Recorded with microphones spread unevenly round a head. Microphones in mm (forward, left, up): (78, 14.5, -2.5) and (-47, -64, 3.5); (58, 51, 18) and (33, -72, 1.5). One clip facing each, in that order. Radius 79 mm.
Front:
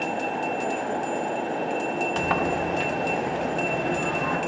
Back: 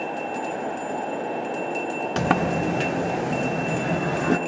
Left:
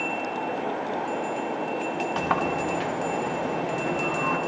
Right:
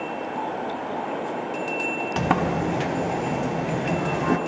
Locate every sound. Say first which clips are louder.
2.2 s a sliding door: back 5 dB, right 5 dB; 150° right, 0.7 m